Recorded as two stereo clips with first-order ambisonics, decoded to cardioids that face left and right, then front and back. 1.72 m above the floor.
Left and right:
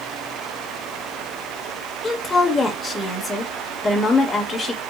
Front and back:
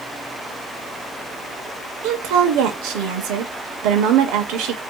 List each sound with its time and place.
2.0 s a woman speaking: 165° left, 1.0 m